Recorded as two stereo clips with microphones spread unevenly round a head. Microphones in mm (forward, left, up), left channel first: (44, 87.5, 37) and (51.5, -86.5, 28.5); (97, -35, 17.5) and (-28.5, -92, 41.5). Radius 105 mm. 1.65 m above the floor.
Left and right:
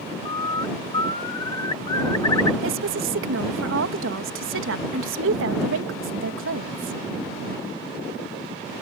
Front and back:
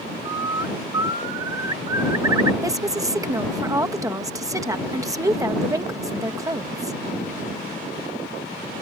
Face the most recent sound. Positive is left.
turn(degrees=-90)